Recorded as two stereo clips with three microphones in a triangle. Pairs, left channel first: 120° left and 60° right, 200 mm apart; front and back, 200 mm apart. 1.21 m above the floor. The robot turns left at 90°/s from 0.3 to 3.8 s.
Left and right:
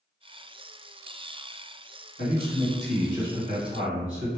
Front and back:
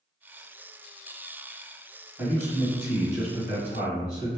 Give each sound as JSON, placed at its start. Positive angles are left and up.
{"t": 2.2, "sound": "a man speaking", "azimuth_deg": 90, "distance_m": 1.7}